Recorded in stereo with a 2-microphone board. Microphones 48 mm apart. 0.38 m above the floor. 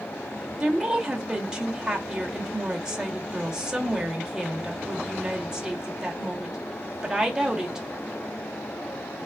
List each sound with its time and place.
0.6 s a woman speaking: 15° right (ahead or behind), 1.0 m